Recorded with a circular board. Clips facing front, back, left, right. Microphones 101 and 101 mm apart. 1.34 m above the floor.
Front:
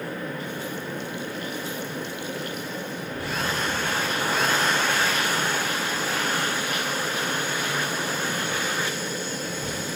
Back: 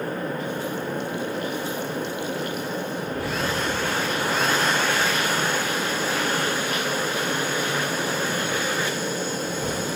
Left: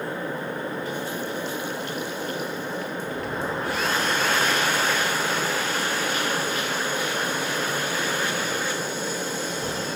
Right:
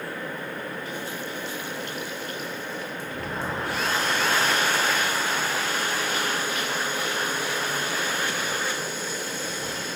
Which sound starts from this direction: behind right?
An explosion, at 3.1 s.